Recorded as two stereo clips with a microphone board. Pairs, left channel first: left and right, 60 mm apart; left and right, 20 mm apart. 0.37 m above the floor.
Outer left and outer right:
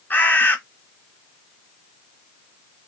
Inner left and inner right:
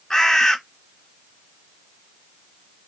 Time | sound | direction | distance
0.1 | a bird | 35° left (ahead or behind) | 0.6 m